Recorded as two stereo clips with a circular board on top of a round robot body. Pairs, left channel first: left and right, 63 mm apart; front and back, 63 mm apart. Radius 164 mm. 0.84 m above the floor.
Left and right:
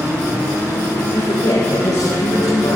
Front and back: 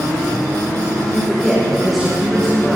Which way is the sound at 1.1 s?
95° left.